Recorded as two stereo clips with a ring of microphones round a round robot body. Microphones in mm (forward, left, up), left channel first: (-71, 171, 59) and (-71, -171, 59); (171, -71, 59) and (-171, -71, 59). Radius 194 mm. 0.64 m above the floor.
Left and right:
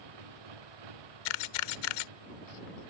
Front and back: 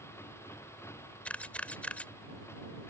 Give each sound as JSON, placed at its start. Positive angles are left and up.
{"t": 0.0, "sound": "a motorcycle", "azimuth_deg": -85}
{"t": 1.2, "sound": "a camera shutter", "azimuth_deg": 85}